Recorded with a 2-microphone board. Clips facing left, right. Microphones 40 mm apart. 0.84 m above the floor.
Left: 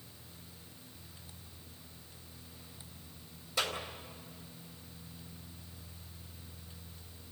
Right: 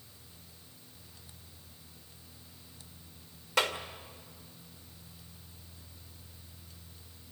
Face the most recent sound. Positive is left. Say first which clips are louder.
# right 5 dB
turn(degrees=-75)  # may be behind; listen again after turning